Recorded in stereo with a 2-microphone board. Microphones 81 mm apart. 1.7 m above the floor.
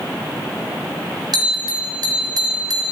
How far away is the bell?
About 3 m.